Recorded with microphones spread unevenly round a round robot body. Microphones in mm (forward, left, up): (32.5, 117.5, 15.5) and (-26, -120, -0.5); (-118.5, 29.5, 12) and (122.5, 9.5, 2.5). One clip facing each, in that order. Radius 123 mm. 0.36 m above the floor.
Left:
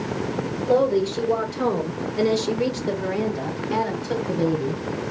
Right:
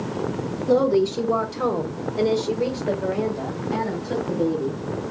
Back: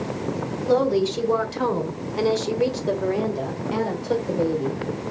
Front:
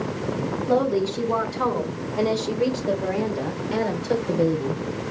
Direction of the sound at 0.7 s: 165° right.